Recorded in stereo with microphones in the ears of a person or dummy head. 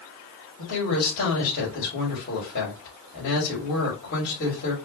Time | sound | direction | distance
0.6 | a woman speaking | 55° left (ahead or behind) | 3 m